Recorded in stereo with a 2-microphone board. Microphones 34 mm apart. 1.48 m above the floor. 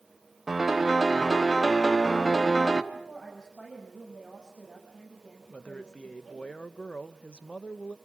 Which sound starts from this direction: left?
A man speaking, at 5.5 s.